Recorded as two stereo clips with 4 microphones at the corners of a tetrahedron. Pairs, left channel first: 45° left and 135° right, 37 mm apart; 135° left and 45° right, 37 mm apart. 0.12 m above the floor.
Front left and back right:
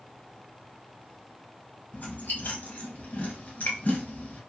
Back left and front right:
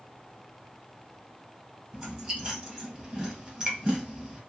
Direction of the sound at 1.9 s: 25° left.